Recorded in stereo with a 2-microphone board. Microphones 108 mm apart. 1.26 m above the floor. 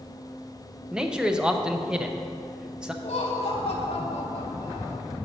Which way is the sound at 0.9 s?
10° right (ahead or behind).